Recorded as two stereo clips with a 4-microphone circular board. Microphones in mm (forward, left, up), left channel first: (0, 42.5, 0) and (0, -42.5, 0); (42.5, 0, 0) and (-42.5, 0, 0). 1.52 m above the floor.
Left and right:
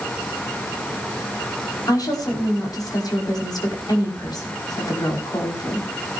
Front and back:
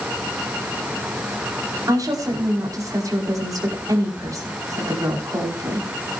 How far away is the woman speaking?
About 5 m.